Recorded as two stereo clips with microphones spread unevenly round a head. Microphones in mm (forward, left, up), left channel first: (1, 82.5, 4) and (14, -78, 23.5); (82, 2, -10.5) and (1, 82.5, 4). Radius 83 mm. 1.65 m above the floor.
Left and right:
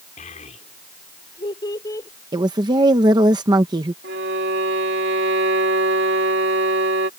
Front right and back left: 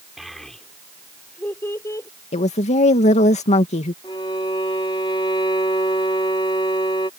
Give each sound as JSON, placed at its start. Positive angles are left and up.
{"t": 0.2, "sound": "a child speaking", "azimuth_deg": 50}
{"t": 2.3, "sound": "a woman speaking", "azimuth_deg": -20}
{"t": 4.0, "sound": "a violin", "azimuth_deg": -110}